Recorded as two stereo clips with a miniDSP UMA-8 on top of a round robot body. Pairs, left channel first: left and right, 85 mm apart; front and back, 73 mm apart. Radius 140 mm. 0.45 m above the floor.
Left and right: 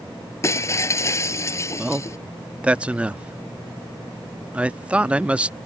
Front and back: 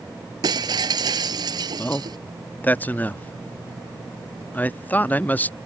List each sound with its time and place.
0.4 s breaking glass: 150° left
1.8 s a man speaking: 30° right